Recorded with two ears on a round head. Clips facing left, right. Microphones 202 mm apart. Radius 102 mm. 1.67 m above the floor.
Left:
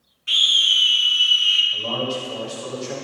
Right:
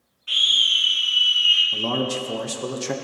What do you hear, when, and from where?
0.3 s a scream: 25° left (ahead or behind), 1.2 m
1.7 s a man speaking: 55° right (ahead or behind), 1.0 m